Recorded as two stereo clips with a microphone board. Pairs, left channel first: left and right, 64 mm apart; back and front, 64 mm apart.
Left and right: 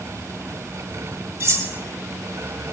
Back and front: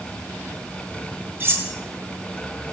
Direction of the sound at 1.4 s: 45° right.